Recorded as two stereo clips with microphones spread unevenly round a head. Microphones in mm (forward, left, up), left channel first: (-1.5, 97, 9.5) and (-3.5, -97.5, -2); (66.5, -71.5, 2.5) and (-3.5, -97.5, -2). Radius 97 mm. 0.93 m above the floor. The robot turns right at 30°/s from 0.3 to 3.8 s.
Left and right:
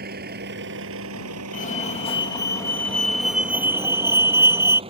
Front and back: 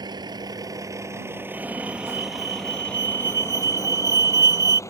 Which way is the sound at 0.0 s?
135° right.